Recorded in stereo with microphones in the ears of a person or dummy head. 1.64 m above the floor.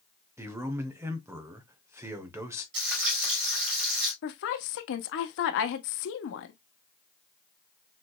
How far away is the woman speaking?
About 0.9 m.